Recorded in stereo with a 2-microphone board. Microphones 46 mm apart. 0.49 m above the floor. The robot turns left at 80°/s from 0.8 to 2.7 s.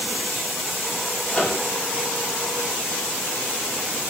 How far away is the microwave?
About 0.6 m.